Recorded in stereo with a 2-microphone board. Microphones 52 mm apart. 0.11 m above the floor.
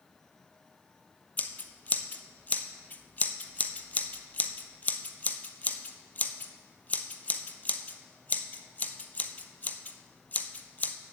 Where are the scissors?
30° left (ahead or behind), 0.6 m.